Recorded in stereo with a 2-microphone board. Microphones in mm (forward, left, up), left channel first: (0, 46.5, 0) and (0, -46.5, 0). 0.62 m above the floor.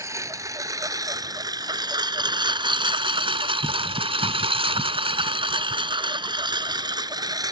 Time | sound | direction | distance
0.0 | a lawn mower | 35° right (ahead or behind) | ?